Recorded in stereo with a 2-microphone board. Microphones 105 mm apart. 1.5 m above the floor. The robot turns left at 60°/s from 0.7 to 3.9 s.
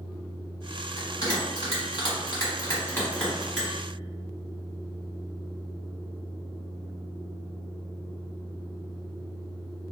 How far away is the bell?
About 1.6 m.